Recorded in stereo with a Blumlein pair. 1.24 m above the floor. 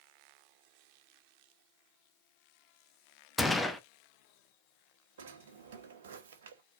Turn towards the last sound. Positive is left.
turn(degrees=-60)